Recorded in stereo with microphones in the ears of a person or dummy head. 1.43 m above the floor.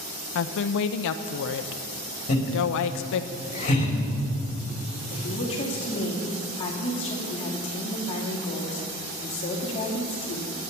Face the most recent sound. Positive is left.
turn(degrees=30)  # may be behind; listen again after turning